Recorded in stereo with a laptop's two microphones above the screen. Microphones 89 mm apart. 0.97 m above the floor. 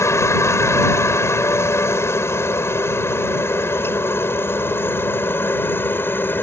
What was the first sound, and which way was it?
A helicopter, 30° left (ahead or behind).